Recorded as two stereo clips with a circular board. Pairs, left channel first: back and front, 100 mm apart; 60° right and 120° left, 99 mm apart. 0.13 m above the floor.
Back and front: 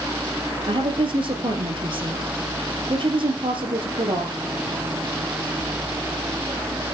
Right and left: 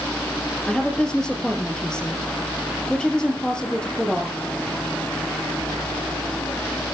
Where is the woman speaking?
20° left, 3 m.